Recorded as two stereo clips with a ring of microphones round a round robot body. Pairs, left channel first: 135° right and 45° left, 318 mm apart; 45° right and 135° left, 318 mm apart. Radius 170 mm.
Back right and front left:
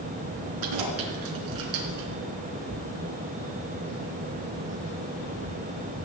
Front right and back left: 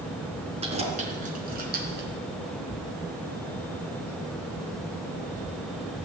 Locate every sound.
0.6 s keys jangling: 65° left, 4.5 m; by 2.1 s 75° left, 3.5 m